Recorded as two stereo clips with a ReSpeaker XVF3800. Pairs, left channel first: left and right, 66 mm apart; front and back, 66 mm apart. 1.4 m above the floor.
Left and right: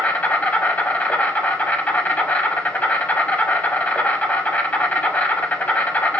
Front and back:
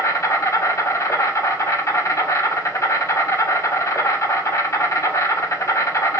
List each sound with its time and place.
0.0 s an insect: 25° left, 0.9 m